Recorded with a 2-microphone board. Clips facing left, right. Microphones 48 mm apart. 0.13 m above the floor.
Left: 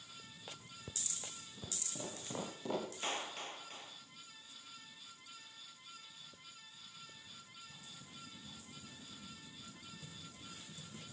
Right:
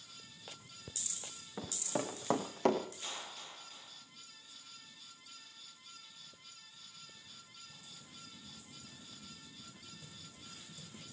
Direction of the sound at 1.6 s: 90° right.